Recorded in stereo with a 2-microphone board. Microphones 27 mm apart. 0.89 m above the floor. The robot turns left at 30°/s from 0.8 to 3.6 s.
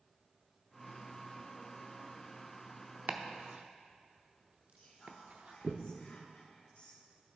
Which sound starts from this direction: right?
Chopping, at 3.1 s.